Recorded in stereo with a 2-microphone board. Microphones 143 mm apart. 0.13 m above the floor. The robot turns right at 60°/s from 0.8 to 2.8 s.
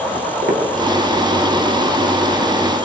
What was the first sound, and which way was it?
Footsteps, 75° right (ahead or behind).